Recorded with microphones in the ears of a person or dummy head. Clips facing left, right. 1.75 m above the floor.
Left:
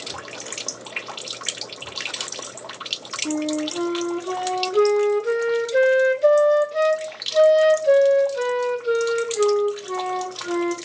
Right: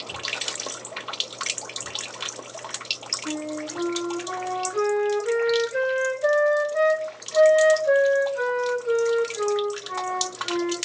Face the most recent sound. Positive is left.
turn(degrees=45)  # may be behind; listen again after turning